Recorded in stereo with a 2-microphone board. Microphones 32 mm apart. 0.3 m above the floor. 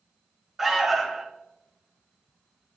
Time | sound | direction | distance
0.6 | an alarm | centre (ahead or behind) | 1.3 m